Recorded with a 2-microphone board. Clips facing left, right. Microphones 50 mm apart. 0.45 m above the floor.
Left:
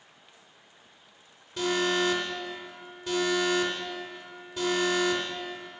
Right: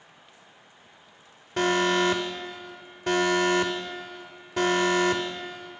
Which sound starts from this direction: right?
An alarm, at 1.6 s.